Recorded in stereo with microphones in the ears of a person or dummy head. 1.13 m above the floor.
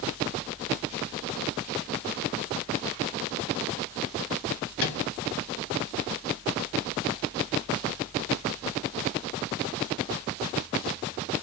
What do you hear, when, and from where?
4.8 s a microwave: 70° left (ahead or behind), 1.2 m